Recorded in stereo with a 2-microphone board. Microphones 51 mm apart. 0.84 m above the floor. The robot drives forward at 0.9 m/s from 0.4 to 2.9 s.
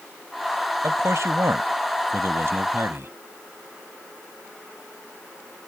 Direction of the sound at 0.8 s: 65° right (ahead or behind).